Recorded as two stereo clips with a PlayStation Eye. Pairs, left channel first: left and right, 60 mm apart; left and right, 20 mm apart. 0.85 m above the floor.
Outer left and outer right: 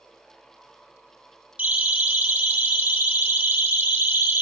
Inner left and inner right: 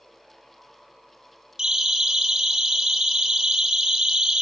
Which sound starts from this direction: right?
A siren, at 1.6 s.